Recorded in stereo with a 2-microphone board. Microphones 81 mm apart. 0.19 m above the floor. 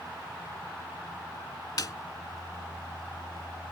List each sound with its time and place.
1.8 s a snare drum: 50° left (ahead or behind)